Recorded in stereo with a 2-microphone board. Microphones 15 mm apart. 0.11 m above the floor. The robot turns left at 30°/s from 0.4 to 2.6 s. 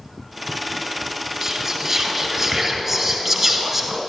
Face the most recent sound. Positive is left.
turn(degrees=-20)  # may be behind; listen again after turning